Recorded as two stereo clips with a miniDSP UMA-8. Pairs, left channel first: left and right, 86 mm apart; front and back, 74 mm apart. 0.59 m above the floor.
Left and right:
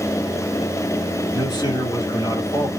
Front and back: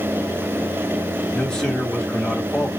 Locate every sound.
1.3 s a man speaking: 75° left, 1.4 m